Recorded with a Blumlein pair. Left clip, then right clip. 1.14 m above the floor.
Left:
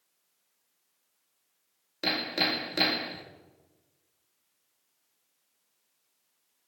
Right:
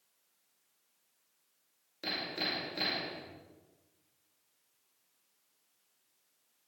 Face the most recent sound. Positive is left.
turn(degrees=60)